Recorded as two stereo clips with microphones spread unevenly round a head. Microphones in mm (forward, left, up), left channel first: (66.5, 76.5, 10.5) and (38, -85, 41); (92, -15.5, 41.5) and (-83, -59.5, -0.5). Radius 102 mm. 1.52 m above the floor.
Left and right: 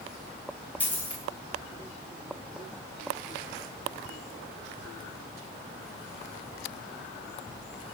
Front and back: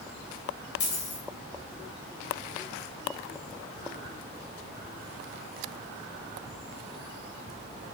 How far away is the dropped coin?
About 3 m.